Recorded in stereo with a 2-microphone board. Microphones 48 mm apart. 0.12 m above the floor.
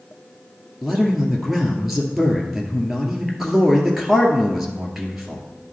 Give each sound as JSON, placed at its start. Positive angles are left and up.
{"t": 0.8, "sound": "a man speaking", "side_deg": -5, "distance_m": 1.9}